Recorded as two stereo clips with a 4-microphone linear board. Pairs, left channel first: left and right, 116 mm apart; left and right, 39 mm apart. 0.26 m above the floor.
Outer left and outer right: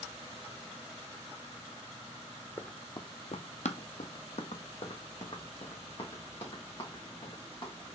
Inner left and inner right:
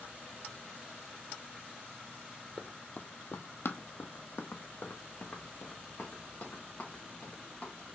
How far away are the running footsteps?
About 0.6 m.